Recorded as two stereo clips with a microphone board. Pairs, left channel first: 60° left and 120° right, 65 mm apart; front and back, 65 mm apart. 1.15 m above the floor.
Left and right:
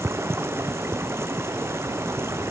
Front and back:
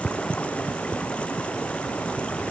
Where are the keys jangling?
No keys jangling in this recording.